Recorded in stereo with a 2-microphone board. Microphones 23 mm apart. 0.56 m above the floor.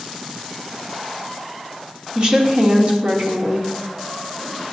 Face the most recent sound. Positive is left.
turn(degrees=-45)  # may be behind; listen again after turning